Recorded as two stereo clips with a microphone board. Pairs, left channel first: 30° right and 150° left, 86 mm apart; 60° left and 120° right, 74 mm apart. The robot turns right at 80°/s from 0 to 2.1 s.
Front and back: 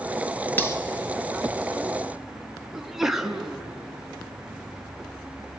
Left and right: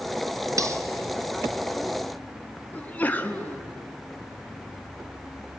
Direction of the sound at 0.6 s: 90° right.